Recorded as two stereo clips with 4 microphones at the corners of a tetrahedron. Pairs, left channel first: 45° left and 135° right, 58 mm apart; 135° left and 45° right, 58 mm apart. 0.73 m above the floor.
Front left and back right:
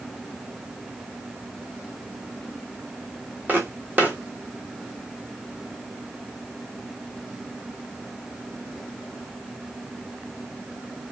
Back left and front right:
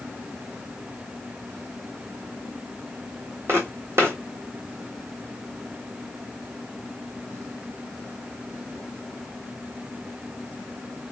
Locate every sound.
3.5 s footsteps: 85° right, 1.3 m